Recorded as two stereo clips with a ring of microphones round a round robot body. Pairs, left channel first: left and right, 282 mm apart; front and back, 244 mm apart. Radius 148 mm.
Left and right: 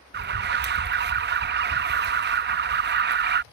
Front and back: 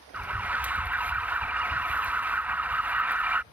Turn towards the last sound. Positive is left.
turn(degrees=-100)